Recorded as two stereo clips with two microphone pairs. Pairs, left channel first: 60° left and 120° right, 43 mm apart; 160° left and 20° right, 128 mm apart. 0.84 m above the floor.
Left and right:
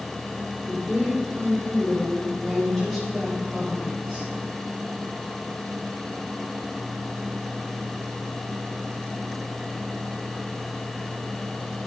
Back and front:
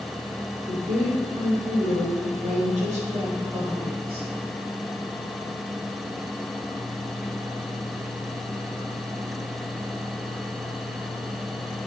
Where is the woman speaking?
10° right, 2.5 m; by 4.3 s 55° right, 1.5 m.